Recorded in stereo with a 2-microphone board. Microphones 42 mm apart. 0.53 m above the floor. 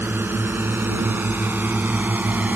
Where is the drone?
70° right (ahead or behind); by 2.6 s 45° right (ahead or behind).